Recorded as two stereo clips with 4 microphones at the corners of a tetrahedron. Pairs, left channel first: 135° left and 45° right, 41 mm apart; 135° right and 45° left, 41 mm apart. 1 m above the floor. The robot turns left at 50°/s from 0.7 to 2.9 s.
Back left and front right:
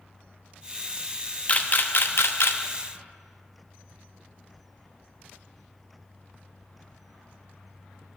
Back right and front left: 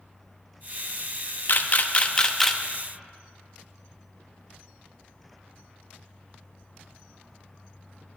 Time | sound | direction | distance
1.5 | a camera shutter | 165° right | 0.7 m